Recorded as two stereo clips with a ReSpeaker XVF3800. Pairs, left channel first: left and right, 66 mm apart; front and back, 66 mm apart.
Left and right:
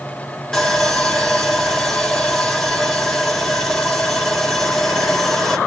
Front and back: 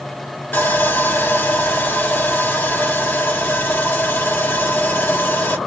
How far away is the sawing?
About 1.2 m.